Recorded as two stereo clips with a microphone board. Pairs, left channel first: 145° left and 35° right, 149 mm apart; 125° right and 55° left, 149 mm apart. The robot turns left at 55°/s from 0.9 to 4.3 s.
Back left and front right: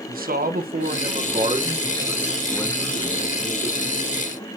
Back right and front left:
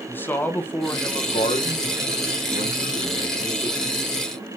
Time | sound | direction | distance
0.1 | a man speaking | 45° right | 1.1 m